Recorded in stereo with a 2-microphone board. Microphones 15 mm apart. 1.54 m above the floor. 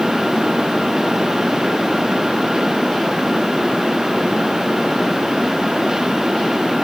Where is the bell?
No bell in this recording.